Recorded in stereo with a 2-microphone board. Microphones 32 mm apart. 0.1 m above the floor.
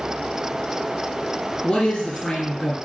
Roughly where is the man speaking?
Left.